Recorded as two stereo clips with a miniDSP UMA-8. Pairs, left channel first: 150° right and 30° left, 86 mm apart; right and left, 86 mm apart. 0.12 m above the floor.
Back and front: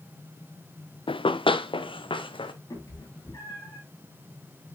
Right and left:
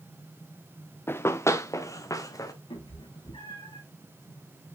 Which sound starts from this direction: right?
A cat meowing, at 2.7 s.